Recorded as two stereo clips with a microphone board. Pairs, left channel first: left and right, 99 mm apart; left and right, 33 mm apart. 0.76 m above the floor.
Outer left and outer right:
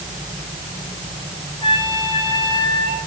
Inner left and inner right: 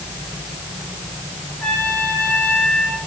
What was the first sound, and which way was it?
A trumpet, 45° left (ahead or behind).